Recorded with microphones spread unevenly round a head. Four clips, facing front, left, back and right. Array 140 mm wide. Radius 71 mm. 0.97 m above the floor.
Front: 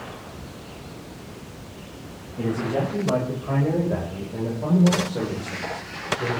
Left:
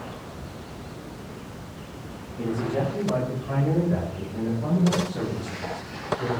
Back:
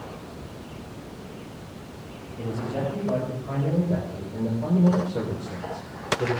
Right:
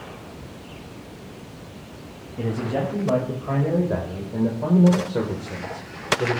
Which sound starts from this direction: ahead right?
A man speaking, at 2.4 s.